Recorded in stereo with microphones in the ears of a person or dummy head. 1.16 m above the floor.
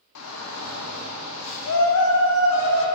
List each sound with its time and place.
0.1 s a shout: 80° left, 0.6 m